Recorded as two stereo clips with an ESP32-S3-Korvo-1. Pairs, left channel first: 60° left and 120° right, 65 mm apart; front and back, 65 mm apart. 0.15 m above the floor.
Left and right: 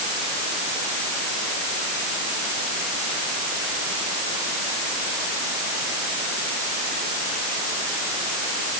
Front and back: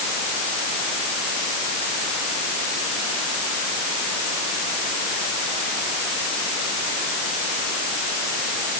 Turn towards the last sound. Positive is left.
No sound to turn to.